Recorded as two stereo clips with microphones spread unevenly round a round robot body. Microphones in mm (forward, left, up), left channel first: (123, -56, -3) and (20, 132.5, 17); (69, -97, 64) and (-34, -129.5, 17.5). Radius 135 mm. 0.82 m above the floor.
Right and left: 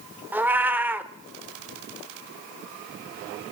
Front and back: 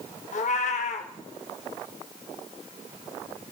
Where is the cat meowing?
35° left, 1.0 m.